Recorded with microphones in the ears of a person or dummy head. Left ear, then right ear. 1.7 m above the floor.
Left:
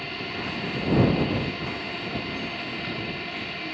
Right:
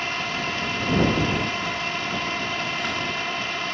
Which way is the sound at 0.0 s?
45° right (ahead or behind).